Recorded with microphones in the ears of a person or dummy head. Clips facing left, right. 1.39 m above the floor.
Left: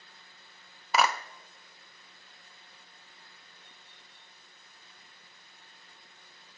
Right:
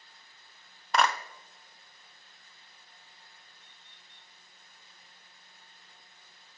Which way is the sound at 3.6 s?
70° right (ahead or behind).